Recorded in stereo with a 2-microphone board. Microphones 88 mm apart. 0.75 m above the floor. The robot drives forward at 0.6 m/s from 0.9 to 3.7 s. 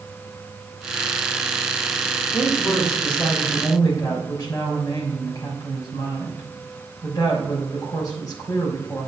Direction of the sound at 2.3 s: 60° left (ahead or behind).